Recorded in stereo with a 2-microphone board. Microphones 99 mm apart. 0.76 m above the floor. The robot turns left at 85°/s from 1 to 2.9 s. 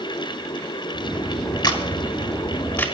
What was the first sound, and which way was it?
A camera shutter, 50° left (ahead or behind).